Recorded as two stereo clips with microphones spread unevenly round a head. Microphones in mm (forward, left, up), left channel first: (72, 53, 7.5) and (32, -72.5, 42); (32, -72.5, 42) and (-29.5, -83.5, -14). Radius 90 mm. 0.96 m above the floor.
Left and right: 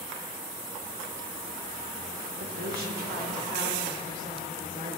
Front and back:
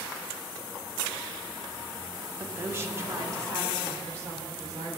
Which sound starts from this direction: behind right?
A woman speaking, at 2.4 s.